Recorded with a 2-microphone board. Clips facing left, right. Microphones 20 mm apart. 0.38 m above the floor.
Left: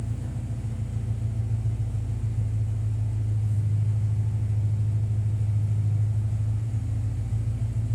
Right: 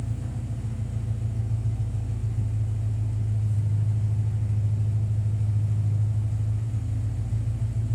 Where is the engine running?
25° right (ahead or behind), 0.7 m.